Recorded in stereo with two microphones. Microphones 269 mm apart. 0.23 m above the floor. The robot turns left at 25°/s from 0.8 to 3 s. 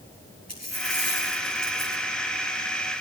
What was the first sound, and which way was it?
A dropped coin, 65° left.